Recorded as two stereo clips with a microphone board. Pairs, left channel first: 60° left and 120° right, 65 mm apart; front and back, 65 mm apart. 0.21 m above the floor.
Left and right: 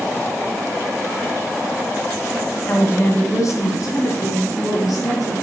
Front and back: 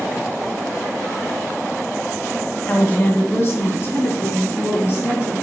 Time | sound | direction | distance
2.7 | a woman speaking | 35° left | 1.1 m